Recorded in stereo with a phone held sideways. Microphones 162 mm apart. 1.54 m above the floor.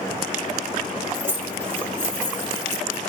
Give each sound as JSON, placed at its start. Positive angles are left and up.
{"t": 1.1, "sound": "keys jangling", "side_deg": -15, "distance_m": 0.6}